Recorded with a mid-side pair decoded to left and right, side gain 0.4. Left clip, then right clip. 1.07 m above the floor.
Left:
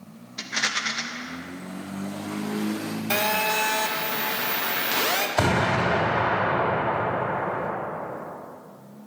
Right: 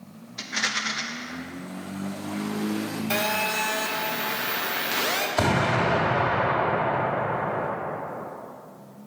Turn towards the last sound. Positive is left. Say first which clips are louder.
# even
turn(degrees=10)